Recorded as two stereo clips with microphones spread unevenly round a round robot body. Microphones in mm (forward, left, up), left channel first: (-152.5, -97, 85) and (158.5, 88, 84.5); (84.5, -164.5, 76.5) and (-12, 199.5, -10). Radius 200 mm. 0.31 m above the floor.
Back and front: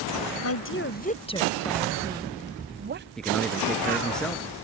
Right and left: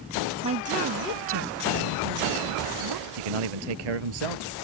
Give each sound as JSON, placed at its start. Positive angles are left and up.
{"t": 0.4, "sound": "a woman speaking", "azimuth_deg": 170}
{"t": 3.2, "sound": "a man speaking", "azimuth_deg": 125}